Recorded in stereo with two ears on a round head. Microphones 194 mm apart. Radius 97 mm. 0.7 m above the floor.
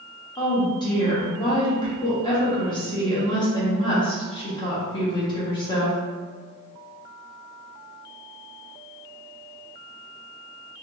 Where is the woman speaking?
20° left (ahead or behind), 1.1 m.